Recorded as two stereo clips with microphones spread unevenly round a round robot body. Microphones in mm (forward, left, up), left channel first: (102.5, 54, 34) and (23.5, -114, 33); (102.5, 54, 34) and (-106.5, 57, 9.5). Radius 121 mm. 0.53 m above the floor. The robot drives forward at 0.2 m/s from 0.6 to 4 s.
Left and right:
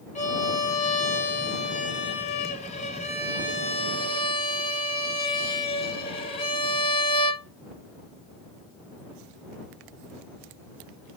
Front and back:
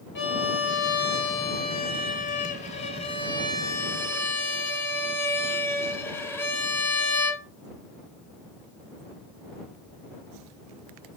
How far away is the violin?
About 1.0 m.